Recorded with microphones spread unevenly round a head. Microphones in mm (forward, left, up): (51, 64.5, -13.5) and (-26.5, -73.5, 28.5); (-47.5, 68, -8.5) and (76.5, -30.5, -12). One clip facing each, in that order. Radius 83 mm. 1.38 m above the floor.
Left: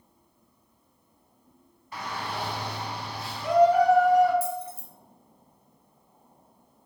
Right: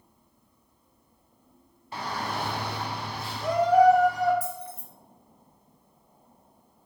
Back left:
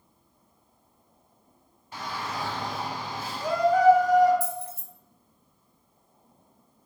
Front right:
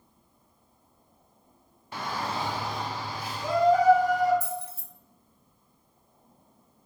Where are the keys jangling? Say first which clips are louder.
Left 4 dB, back left 2 dB; 130° left, 0.6 m.